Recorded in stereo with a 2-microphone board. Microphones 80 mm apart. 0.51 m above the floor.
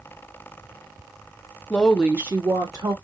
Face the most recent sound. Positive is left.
turn(degrees=-50)  # may be behind; listen again after turning